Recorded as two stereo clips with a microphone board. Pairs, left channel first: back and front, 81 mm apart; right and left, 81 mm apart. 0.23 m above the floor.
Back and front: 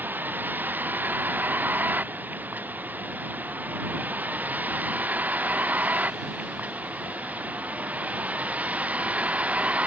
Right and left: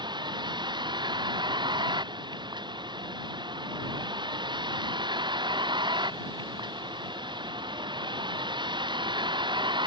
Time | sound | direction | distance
0.0 | a vehicle | 70° left | ?